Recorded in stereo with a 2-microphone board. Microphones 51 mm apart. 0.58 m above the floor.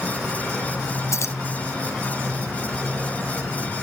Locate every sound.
1.1 s keys jangling: 70° left (ahead or behind)